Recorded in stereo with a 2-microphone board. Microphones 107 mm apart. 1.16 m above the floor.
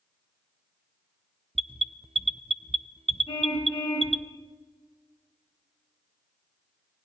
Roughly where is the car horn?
Left.